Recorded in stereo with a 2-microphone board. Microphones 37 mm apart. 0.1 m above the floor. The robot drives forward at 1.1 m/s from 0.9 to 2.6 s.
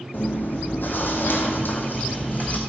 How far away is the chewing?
About 1.6 m.